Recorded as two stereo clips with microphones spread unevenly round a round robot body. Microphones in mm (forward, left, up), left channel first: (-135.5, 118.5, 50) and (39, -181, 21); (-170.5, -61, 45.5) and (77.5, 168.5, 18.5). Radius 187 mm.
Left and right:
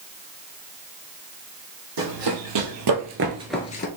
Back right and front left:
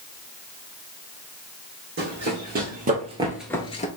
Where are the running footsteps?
25° right, 1.9 m; by 3.9 s 165° left, 0.7 m.